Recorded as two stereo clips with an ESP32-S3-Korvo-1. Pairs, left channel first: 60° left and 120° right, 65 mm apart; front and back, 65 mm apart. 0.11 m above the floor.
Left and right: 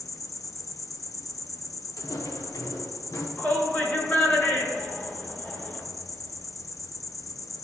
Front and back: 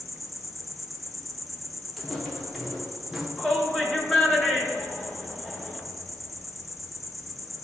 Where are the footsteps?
85° left, 2.5 m; by 3.3 s 100° left, 2 m.